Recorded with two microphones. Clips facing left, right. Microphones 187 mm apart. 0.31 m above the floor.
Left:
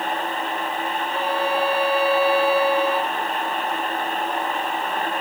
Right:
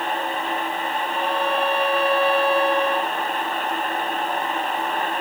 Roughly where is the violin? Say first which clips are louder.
Left 1 dB; centre.